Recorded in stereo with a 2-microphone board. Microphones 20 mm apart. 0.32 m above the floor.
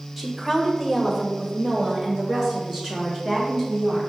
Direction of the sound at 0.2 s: 10° right (ahead or behind).